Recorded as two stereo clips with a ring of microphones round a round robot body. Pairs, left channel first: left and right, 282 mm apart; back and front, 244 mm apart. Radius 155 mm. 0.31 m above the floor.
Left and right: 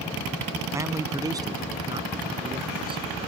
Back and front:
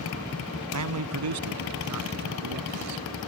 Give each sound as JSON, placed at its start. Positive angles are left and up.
{"t": 0.7, "sound": "a man speaking", "azimuth_deg": -10}